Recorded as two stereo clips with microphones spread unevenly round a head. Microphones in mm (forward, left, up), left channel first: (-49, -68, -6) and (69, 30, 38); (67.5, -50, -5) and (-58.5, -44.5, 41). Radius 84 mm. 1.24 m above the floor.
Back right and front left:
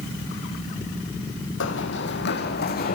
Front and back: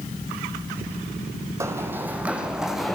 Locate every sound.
1.6 s running footsteps: 130° right, 2.5 m; by 3.0 s 100° right, 3 m